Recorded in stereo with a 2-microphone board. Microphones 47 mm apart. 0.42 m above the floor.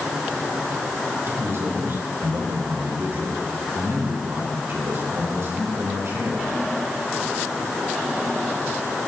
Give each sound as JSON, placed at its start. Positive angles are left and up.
{"t": 1.3, "sound": "a man speaking", "side_deg": -60, "distance_m": 6.5}